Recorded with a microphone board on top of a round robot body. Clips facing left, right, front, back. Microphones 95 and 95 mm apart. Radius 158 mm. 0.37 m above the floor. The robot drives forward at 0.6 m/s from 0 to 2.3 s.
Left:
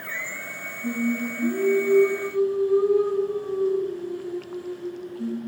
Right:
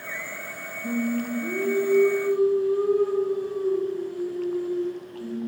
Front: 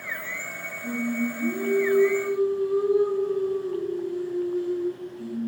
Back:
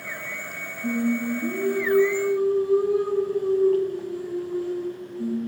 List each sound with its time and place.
0.8 s singing: 150° left, 3 m; by 5.4 s 155° left, 4 m